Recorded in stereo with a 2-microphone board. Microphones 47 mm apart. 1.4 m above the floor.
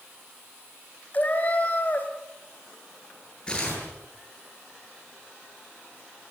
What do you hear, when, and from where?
1.1 s a cat meowing: 35° left (ahead or behind), 2.5 m
3.5 s tearing paper: 20° left (ahead or behind), 10 m